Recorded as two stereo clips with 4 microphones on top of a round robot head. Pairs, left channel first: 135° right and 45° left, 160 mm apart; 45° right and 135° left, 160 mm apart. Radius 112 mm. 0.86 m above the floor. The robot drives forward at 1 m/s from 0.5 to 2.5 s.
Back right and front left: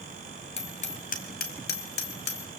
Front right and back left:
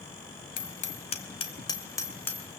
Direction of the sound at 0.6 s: 85° right.